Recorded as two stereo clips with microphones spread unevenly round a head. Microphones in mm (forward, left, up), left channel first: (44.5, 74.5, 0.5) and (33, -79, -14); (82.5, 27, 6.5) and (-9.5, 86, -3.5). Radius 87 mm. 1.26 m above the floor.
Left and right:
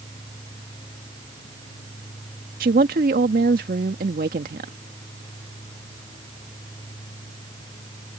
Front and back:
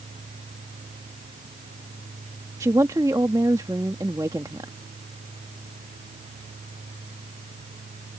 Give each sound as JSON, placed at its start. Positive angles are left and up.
{"t": 2.6, "sound": "a woman speaking", "azimuth_deg": -140}